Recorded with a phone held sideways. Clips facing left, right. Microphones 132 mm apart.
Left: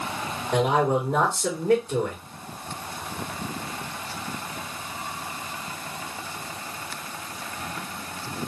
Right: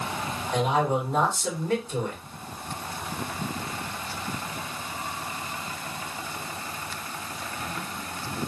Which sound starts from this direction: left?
A man speaking, at 0.5 s.